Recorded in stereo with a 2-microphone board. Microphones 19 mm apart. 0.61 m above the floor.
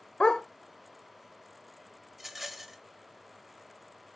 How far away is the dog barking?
About 0.6 m.